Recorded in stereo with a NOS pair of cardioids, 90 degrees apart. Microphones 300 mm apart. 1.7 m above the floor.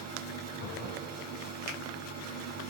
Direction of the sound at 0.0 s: 65° right.